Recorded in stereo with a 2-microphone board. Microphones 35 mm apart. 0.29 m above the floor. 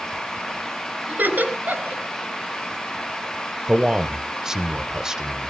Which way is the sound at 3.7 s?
15° right (ahead or behind).